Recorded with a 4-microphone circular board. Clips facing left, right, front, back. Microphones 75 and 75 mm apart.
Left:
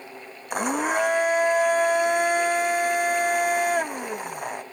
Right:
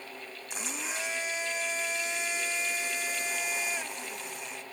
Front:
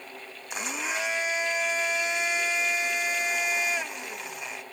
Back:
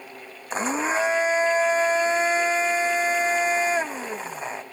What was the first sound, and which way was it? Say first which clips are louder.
A blender: left 15 dB, back 8 dB; 125° left.